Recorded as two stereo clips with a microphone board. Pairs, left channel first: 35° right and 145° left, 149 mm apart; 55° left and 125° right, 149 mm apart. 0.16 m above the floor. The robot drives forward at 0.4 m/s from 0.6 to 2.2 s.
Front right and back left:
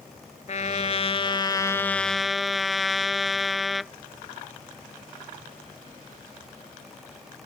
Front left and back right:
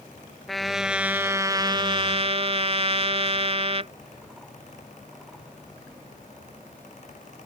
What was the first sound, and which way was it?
A trumpet, 35° right.